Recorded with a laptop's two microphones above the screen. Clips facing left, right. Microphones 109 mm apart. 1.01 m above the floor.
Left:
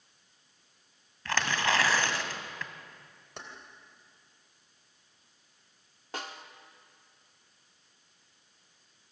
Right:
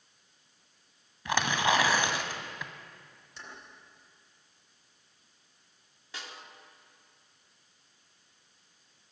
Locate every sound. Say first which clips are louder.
1.2 s tearing paper: right 2 dB; 15° right (ahead or behind), 1.6 m
3.4 s keys jangling: left 3 dB; 65° left (ahead or behind), 3 m
6.1 s a snare drum: left 5 dB; 50° left (ahead or behind), 1.2 m